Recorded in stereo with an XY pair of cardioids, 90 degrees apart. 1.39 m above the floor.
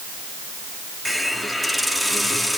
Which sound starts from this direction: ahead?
A hiss, at 1.1 s.